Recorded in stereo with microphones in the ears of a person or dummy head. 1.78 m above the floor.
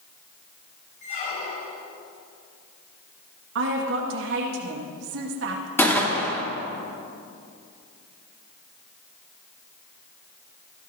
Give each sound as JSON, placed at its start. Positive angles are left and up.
{"t": 1.0, "sound": "a squeak", "side_deg": 30, "distance_m": 1.6}
{"t": 3.5, "sound": "a woman speaking", "side_deg": -70, "distance_m": 2.0}
{"t": 5.8, "sound": "a gunshot", "side_deg": 15, "distance_m": 3.0}